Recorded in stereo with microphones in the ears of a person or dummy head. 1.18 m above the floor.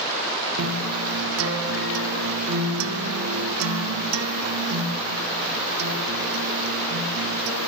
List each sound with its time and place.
0.6 s a guitar: 85° right, 2.5 m